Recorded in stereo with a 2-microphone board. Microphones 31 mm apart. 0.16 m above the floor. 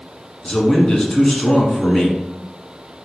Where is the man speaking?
25° left (ahead or behind), 1.3 m.